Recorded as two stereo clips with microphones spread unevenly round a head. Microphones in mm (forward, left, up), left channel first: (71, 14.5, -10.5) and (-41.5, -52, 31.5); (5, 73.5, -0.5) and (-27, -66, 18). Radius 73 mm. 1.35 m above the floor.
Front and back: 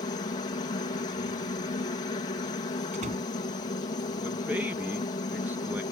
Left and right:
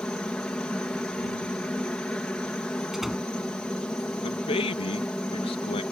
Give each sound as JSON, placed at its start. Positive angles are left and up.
{"t": 0.0, "sound": "a helicopter", "azimuth_deg": -5}
{"t": 2.9, "sound": "a door slam", "azimuth_deg": 170}
{"t": 4.2, "sound": "a man speaking", "azimuth_deg": 130}